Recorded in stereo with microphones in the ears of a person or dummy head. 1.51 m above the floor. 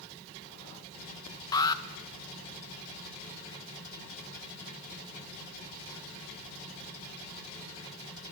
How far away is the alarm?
About 2 m.